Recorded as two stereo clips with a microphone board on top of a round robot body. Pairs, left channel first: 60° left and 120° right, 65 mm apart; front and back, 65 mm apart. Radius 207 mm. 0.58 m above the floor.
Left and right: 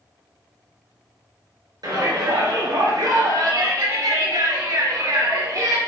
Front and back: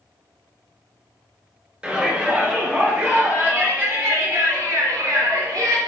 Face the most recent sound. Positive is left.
turn(degrees=-155)